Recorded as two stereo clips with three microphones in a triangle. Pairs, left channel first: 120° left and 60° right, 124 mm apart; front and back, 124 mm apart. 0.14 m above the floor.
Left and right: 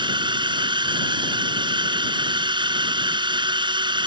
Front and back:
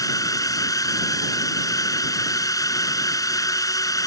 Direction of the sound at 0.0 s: 45° right.